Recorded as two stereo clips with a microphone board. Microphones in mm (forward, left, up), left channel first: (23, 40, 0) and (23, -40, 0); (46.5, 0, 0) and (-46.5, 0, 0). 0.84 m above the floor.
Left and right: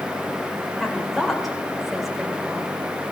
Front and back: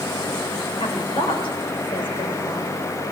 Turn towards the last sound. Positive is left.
turn(degrees=0)